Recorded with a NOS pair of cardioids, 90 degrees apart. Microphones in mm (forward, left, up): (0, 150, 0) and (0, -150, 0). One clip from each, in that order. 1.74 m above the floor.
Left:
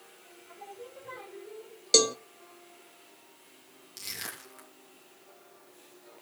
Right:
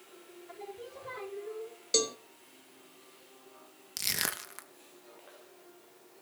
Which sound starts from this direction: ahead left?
A cowbell, at 1.9 s.